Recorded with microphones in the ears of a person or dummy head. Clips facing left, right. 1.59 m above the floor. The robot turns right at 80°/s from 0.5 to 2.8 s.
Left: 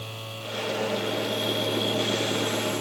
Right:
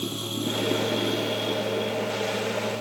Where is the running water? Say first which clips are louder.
Right 9 dB; 75° right; by 2.8 s 110° left.